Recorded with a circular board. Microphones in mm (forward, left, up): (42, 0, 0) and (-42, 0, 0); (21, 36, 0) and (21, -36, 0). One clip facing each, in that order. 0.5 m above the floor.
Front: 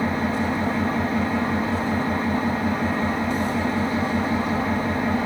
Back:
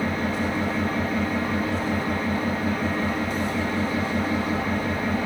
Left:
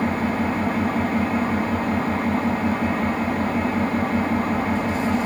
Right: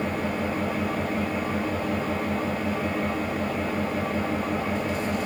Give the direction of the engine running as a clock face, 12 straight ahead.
10 o'clock.